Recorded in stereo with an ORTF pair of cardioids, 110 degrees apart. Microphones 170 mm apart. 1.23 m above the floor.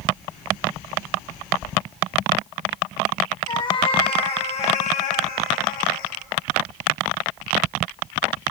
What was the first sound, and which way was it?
A cat meowing, 25° left.